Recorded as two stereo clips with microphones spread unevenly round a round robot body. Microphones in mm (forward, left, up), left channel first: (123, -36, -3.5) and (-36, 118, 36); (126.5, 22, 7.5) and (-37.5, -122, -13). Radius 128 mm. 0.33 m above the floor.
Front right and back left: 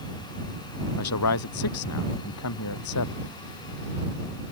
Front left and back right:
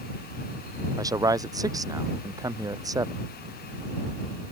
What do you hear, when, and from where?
1.0 s a man speaking: 65° right